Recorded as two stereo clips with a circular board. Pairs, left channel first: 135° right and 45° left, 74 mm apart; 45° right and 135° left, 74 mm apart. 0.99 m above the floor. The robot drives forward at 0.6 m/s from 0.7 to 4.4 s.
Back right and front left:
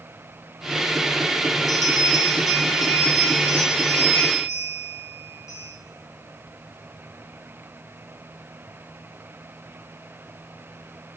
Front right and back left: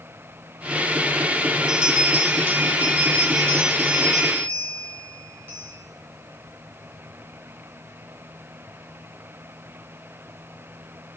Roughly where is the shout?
I don't hear a shout.